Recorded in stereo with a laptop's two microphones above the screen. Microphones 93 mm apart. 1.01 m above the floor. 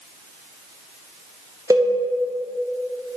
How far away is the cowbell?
About 1.0 m.